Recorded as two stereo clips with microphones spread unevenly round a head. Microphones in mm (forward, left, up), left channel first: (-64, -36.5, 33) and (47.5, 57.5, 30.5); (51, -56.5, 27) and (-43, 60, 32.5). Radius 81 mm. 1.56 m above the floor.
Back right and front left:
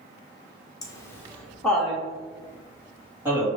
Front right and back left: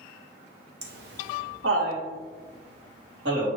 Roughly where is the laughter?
Behind left.